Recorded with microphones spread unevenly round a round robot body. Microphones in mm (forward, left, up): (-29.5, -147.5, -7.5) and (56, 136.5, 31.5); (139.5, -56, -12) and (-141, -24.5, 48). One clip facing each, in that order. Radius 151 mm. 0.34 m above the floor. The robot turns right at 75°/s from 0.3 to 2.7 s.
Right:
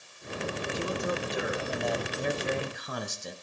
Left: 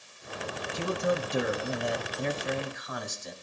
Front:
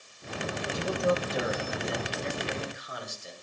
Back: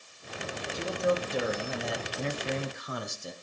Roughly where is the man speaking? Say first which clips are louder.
Left 5 dB, even; ahead left.